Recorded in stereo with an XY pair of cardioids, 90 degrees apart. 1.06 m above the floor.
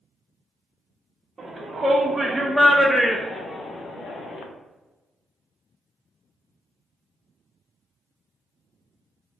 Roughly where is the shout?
Ahead right.